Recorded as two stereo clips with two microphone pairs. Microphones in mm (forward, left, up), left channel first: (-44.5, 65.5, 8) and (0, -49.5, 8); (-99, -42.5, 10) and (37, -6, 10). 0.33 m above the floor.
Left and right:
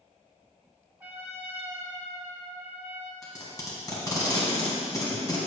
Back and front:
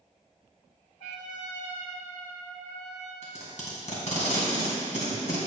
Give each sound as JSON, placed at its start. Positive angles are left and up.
{"t": 1.0, "sound": "a trumpet", "azimuth_deg": -145, "distance_m": 1.1}
{"t": 3.2, "sound": "tape being pulled", "azimuth_deg": 170, "distance_m": 2.0}